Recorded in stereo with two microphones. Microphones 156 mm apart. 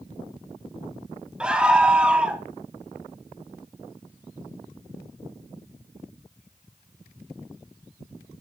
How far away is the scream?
About 1.2 m.